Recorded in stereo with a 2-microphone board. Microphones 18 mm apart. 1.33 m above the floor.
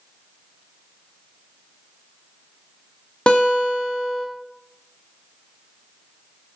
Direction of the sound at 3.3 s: 65° left (ahead or behind).